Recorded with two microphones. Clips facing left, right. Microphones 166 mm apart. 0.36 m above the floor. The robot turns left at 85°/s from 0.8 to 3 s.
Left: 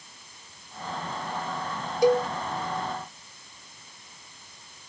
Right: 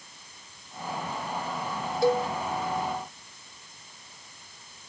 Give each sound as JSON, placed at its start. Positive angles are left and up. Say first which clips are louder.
{"t": 2.0, "sound": "a cowbell", "louder": "left 3 dB", "side_deg": 15, "distance_m": 1.0}